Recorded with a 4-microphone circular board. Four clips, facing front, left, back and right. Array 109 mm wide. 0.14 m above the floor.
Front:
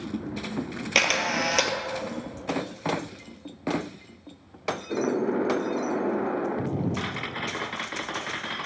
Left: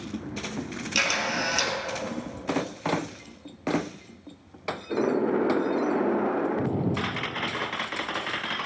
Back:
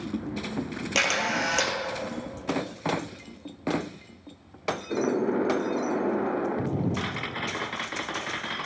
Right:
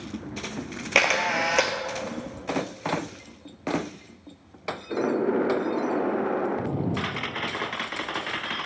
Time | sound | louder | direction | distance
0.9 | a camera shutter | right 5 dB, front 1 dB | 75° right | 0.8 m